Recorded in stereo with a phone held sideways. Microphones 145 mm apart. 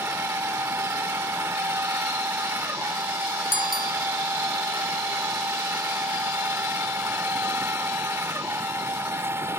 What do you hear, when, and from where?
0.0 s a machine running: 15° right (ahead or behind)
3.5 s a bicycle bell: 75° left (ahead or behind)